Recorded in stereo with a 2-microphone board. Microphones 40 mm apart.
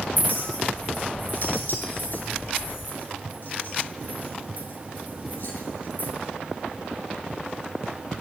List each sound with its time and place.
0.2 s a clink: 50° left (ahead or behind), 6.5 m